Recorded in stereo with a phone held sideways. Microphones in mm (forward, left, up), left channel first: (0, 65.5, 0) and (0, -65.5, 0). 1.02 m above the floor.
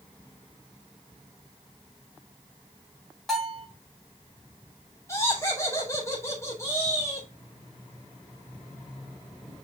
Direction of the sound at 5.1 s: 20° left (ahead or behind).